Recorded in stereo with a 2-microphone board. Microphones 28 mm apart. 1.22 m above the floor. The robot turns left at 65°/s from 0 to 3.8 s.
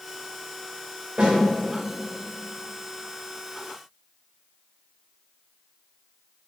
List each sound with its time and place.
1.2 s a snare drum: 45° right (ahead or behind), 1.9 m; by 1.4 s 55° right (ahead or behind), 1.9 m